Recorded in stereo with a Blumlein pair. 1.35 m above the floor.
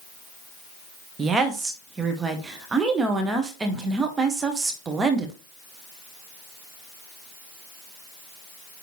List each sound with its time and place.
1.2 s a woman speaking: 15° right, 1.7 m